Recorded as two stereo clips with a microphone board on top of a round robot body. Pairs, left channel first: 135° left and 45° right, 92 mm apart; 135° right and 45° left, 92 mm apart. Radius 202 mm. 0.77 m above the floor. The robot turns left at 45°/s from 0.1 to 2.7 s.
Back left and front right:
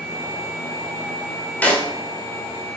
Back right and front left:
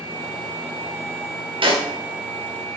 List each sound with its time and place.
1.6 s a snare drum: 60° left, 1.1 m; by 1.9 s 50° left, 1.1 m